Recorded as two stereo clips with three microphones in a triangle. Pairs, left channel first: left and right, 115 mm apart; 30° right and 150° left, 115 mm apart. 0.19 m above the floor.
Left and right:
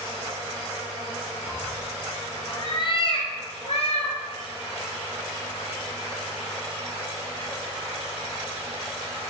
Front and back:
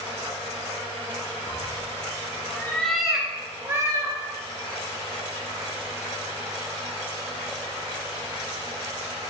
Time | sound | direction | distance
1.5 | a cat meowing | 10° right | 1.5 m